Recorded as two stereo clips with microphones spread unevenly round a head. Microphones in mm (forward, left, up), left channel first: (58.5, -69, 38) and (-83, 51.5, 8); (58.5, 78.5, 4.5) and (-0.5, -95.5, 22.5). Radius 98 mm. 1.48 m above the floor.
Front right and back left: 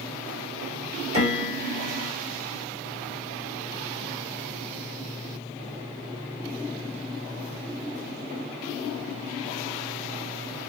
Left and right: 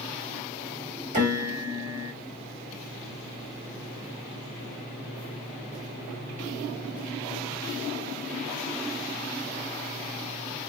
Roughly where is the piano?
Behind.